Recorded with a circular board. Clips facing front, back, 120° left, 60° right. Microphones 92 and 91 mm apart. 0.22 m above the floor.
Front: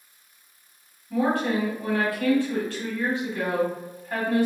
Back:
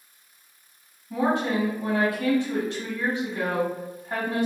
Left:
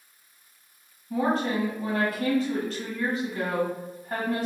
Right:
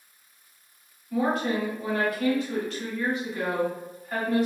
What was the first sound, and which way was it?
A woman speaking, 130° left.